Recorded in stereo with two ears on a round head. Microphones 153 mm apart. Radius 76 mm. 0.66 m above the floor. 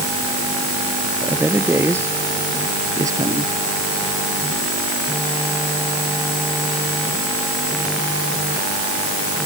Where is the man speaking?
10° right (ahead or behind); by 3.5 s 20° right (ahead or behind).